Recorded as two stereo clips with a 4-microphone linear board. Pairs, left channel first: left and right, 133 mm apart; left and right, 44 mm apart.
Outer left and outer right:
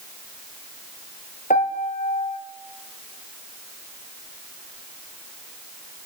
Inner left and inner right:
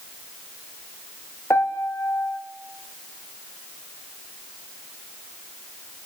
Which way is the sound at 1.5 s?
80° left.